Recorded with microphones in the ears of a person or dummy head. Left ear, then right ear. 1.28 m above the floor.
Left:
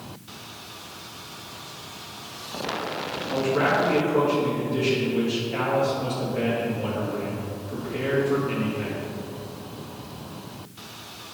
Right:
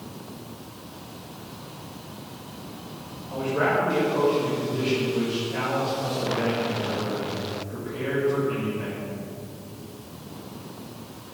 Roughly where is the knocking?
No knocking in this recording.